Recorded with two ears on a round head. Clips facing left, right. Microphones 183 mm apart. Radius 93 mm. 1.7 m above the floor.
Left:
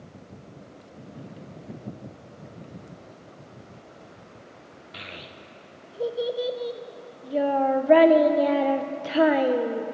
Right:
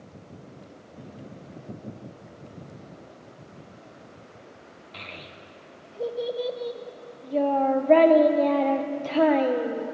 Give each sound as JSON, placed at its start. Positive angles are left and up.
{"t": 4.9, "sound": "a child speaking", "side_deg": 10, "distance_m": 0.8}